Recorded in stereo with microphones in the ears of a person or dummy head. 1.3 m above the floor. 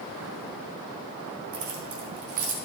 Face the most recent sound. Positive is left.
turn(degrees=-40)  # may be behind; listen again after turning